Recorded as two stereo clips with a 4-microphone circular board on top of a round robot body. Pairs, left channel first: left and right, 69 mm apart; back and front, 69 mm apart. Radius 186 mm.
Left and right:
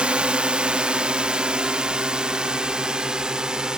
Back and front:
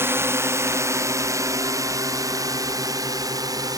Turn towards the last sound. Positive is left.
turn(degrees=-15)